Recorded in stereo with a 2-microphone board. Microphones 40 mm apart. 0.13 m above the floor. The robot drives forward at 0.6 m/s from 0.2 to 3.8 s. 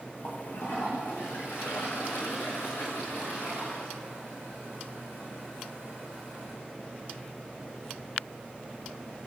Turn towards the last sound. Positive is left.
turn(degrees=60)  # may be behind; listen again after turning